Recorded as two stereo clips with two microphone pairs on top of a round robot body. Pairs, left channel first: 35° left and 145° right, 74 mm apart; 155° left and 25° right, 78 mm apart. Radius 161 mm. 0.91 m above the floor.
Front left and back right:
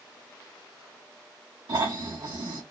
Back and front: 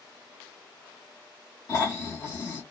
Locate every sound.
1.7 s snoring: 160° right, 1.3 m